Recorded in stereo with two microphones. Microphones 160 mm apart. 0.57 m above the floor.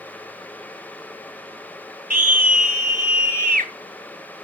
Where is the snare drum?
No snare drum in this recording.